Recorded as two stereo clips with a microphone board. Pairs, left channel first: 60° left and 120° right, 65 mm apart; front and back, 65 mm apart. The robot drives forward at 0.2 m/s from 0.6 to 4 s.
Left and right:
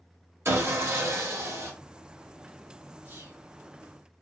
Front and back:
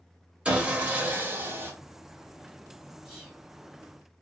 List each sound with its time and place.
0.5 s sawing: 115° right, 0.6 m; by 1.7 s 140° right, 0.7 m
3.0 s whispering: 110° right, 1.8 m